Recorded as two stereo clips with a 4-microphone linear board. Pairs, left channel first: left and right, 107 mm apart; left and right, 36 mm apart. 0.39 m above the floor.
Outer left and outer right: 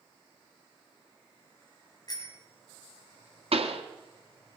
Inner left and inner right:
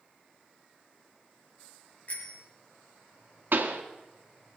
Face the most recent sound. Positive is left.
turn(degrees=-70)  # may be behind; listen again after turning